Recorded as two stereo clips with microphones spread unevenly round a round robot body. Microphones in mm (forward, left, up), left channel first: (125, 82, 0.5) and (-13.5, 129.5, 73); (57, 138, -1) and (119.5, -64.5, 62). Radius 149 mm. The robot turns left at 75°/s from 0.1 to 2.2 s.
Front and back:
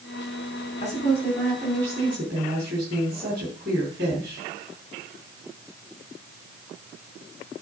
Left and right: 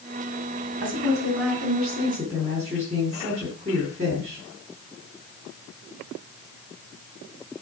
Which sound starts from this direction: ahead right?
A woman speaking, at 0.8 s.